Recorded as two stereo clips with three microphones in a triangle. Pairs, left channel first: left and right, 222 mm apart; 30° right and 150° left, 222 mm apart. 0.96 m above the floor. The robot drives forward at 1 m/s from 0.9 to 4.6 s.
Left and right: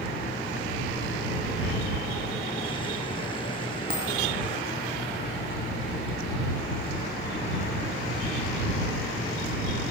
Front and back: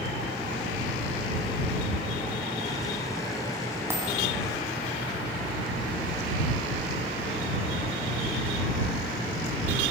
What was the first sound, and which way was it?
A dropped coin, 130° right.